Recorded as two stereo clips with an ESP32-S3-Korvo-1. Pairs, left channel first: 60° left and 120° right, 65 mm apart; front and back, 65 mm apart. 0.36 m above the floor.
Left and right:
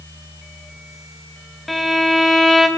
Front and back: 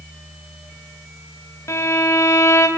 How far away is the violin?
About 2.5 m.